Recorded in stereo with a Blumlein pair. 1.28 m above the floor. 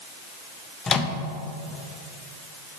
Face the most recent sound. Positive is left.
turn(degrees=20)